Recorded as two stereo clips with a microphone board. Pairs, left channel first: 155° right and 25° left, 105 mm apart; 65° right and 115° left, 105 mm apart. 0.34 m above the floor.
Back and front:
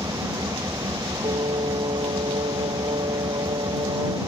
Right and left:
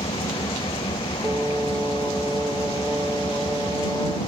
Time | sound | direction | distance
0.0 | an engine running | 35° right | ?
1.2 | singing | 40° left | ?